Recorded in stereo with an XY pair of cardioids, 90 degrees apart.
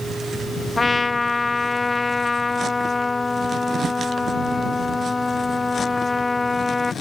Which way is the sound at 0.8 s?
25° left.